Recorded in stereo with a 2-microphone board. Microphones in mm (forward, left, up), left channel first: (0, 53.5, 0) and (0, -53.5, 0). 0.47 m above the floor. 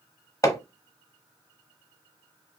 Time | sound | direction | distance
0.4 | hammering | 30° left (ahead or behind) | 0.9 m